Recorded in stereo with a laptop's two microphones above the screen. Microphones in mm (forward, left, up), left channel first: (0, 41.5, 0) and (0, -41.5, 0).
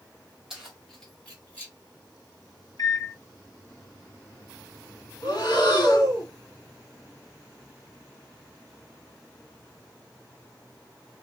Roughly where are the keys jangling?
Centre.